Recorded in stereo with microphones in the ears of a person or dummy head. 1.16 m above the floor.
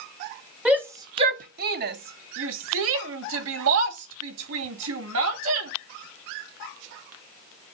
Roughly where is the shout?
Centre.